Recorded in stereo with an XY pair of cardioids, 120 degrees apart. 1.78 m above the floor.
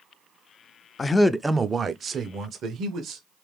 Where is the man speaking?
30° left, 0.5 m; by 3.2 s 60° right, 1.7 m.